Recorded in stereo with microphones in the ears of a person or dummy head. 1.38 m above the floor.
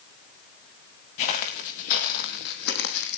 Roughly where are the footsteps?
Left.